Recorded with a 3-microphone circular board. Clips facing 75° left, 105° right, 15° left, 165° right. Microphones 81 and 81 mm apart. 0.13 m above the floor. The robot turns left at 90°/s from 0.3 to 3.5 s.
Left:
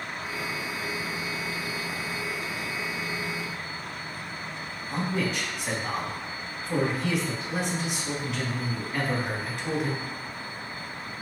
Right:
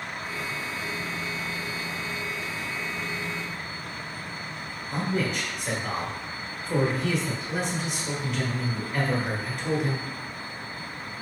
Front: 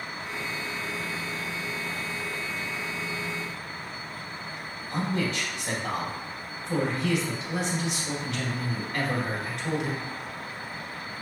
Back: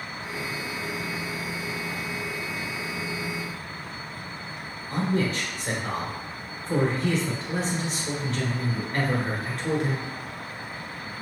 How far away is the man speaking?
About 1.9 m.